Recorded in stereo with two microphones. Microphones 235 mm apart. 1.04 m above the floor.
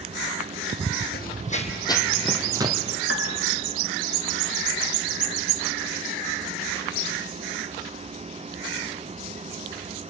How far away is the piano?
About 1.6 m.